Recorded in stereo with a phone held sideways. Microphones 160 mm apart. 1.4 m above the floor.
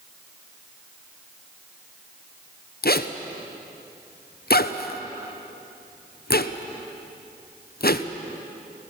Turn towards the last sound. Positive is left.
turn(degrees=75)  # may be behind; listen again after turning